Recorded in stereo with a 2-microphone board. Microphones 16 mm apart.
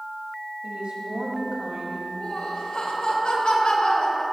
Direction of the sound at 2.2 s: 80° left.